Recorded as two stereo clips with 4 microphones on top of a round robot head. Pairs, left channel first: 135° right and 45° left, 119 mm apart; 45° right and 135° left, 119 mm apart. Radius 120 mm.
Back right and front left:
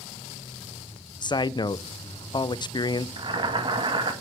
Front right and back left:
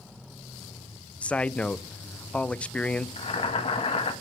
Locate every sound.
1.2 s a man speaking: 120° right, 0.7 m
3.2 s boiling: 5° right, 2 m